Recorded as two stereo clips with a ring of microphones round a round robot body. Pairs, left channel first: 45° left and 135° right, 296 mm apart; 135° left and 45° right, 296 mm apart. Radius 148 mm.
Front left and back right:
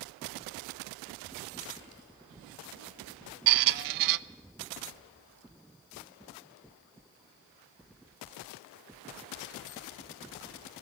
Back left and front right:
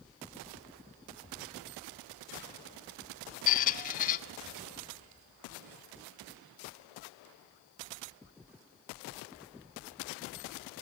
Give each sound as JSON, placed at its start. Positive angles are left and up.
{"t": 3.5, "sound": "a squeak", "azimuth_deg": -160, "distance_m": 0.5}